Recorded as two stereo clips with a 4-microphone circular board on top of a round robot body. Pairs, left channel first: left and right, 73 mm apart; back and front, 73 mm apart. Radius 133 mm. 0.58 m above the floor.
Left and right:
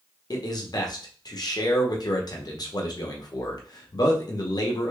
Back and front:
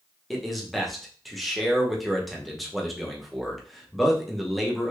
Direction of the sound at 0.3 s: 90° left.